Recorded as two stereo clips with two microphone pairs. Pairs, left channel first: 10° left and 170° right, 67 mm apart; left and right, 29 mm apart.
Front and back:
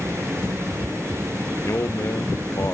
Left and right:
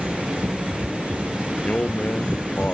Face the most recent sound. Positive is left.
turn(degrees=55)